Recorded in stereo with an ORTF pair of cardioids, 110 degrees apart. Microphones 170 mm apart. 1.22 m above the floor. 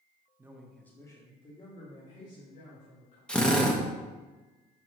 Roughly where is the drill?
Ahead.